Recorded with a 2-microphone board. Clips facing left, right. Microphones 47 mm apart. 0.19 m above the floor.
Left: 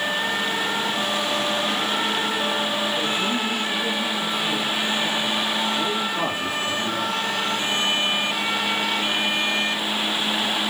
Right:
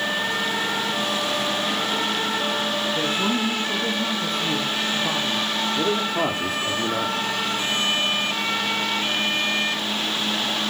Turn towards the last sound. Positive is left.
turn(degrees=-60)  # may be behind; listen again after turning